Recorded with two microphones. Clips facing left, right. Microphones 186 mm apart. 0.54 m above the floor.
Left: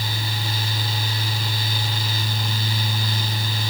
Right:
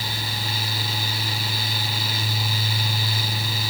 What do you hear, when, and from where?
Only background noise.